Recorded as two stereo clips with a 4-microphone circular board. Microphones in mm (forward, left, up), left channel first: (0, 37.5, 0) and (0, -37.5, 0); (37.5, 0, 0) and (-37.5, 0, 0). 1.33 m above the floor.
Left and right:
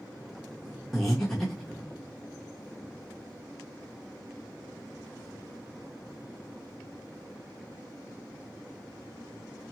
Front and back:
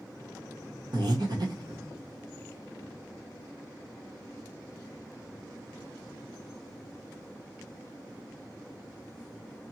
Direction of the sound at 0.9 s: 175° left.